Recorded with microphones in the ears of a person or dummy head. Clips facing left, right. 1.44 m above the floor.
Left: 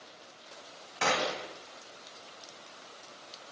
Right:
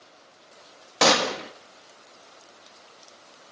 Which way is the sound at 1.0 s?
85° right.